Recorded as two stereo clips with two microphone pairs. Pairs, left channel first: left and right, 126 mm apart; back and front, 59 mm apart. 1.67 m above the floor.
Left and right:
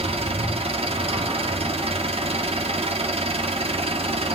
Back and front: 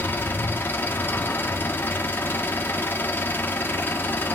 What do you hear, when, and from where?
0.0 s an engine running: 130° right, 1.8 m